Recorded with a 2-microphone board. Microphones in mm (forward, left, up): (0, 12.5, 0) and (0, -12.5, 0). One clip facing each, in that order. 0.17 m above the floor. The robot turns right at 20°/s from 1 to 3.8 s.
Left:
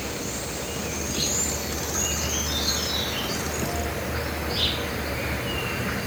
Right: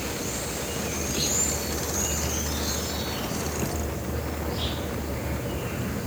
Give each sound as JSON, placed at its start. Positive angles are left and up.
{"t": 0.0, "sound": "an insect", "azimuth_deg": 10, "distance_m": 0.8}